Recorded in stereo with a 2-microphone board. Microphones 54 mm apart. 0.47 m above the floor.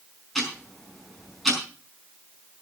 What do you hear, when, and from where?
0.3 s ticking: centre (ahead or behind), 5 m